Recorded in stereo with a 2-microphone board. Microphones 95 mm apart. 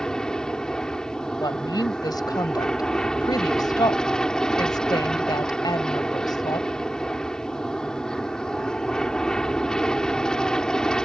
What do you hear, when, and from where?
0.0 s an aircraft: 5° left (ahead or behind)
1.4 s a woman speaking: 45° left (ahead or behind)